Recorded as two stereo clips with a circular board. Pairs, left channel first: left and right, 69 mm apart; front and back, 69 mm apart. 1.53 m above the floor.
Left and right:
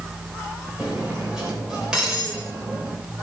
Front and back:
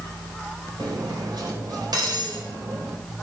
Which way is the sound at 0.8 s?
170° right.